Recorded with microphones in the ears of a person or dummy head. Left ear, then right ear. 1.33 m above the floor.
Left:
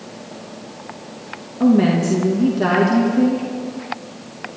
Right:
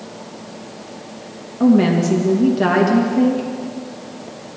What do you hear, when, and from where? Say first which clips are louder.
1.6 s a woman speaking: right 1 dB; 10° right (ahead or behind), 1.7 m